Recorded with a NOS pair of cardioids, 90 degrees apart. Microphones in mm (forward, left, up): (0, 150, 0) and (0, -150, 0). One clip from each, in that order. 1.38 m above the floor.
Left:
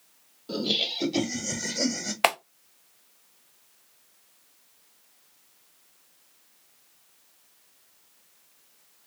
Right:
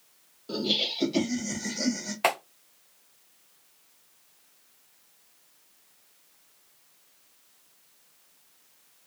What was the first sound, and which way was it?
Laughter, straight ahead.